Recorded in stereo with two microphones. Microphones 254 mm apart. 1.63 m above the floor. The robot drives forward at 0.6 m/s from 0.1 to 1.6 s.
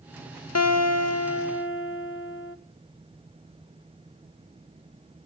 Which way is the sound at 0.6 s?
80° left.